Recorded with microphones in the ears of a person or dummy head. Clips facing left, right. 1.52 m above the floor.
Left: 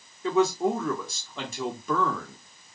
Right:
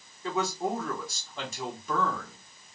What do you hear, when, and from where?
0.2 s a man speaking: 65° left (ahead or behind), 1.1 m